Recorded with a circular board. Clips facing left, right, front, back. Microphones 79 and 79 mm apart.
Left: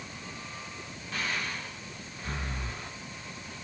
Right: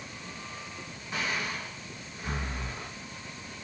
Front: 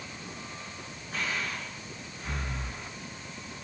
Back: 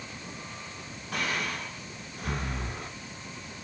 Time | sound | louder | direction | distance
1.1 | breathing | right 1 dB, back 2 dB | 160° right | 2.5 m